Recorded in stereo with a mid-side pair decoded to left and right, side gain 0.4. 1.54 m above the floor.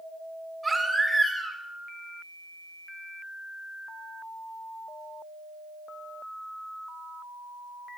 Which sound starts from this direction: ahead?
A baby crying, at 0.6 s.